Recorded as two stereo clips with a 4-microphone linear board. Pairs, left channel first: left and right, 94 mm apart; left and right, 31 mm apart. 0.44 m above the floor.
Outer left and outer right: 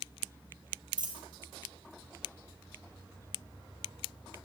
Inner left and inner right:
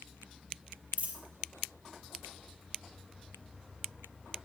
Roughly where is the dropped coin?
Right.